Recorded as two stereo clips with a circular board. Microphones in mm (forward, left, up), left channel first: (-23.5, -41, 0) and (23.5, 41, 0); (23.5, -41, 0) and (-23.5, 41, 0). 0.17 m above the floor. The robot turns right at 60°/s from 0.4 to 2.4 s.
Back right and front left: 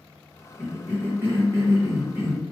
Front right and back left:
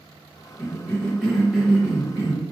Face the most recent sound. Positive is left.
turn(degrees=95)